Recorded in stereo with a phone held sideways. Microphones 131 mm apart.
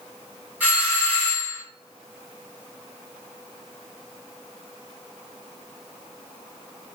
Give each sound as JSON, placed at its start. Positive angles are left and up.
{"t": 0.6, "sound": "a doorbell", "side_deg": -10, "distance_m": 2.0}